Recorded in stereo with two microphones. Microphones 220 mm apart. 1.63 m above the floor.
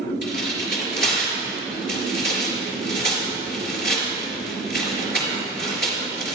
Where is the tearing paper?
45° left (ahead or behind), 3.5 m.